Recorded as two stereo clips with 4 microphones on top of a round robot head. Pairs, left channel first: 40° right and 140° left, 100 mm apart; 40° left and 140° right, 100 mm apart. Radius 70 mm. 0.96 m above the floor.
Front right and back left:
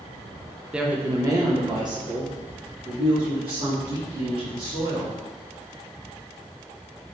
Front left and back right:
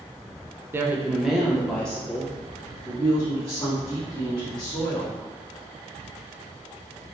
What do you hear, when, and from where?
0.7 s a woman speaking: 145° right, 0.5 m; by 5.2 s 105° left, 2.5 m